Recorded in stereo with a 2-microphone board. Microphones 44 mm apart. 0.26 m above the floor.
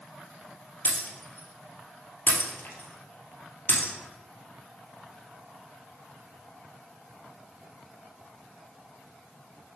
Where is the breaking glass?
45° left (ahead or behind), 2 m.